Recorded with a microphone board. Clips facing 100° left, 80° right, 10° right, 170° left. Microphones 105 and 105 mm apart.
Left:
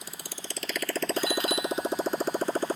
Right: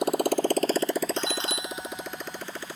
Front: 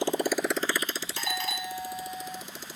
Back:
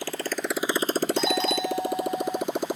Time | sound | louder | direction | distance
0.0 | a motorcycle | right 20 dB, front 3 dB | 75° right | ?
1.2 | a doorbell | left 3 dB, back 9 dB | 135° right | ?